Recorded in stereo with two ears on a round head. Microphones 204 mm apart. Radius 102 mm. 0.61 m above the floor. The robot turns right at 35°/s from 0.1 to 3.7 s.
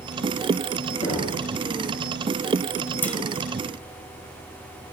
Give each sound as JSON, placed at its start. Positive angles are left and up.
{"t": 1.0, "sound": "knocking", "side_deg": 25, "distance_m": 7.0}
{"t": 3.0, "sound": "a clunk", "side_deg": 10, "distance_m": 1.5}